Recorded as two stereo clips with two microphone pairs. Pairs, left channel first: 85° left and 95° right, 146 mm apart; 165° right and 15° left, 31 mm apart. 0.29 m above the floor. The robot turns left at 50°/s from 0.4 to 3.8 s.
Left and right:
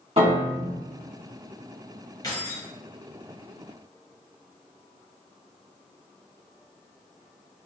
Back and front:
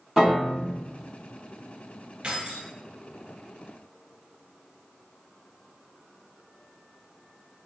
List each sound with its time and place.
0.2 s a piano: 70° right, 1.7 m; by 0.8 s 85° right, 1.7 m
2.2 s keys jangling: 40° left, 1.2 m; by 2.7 s 15° left, 1.2 m